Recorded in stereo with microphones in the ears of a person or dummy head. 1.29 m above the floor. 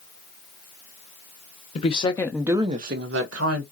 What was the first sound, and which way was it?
A woman speaking, 35° left (ahead or behind).